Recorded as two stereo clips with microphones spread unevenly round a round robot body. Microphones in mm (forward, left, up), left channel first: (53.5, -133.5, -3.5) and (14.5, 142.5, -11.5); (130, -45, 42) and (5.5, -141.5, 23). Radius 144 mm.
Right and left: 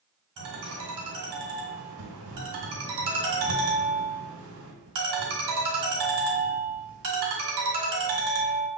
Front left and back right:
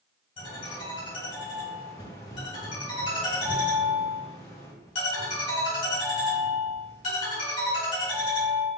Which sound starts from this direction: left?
A ringtone, at 0.4 s.